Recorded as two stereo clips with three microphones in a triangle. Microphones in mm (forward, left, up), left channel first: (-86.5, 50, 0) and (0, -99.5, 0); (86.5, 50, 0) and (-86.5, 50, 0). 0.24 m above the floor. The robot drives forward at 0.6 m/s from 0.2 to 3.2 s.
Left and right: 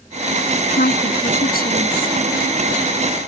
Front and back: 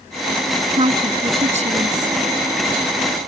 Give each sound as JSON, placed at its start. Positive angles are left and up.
{"t": 0.8, "sound": "a woman speaking", "azimuth_deg": 130}